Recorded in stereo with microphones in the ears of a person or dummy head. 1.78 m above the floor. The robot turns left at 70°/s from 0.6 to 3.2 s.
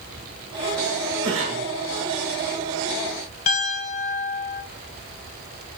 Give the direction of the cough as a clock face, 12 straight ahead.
3 o'clock.